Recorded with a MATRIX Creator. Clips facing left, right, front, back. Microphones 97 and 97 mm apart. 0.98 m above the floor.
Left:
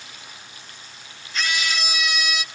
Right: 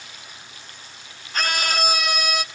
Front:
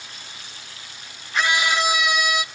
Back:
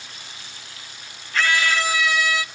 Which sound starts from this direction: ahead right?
A scream, at 1.3 s.